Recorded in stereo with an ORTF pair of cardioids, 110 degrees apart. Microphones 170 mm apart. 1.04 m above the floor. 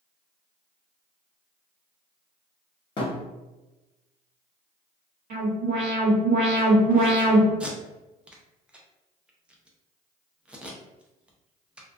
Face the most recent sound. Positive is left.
turn(degrees=-5)